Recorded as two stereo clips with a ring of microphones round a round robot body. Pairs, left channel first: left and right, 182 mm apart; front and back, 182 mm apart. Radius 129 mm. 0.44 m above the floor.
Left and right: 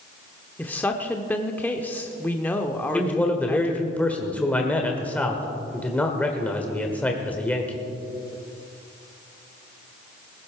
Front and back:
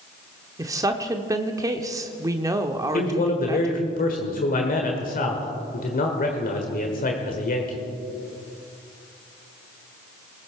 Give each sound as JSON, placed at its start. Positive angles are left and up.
{"t": 0.6, "sound": "a woman speaking", "azimuth_deg": 155, "distance_m": 0.9}
{"t": 2.9, "sound": "a man speaking", "azimuth_deg": 10, "distance_m": 1.5}